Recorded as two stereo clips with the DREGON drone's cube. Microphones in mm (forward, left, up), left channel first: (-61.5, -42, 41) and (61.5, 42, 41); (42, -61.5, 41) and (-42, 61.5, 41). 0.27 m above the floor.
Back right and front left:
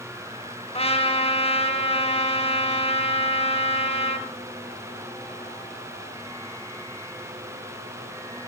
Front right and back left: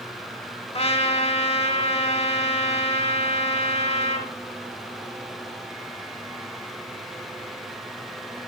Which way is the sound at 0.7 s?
100° right.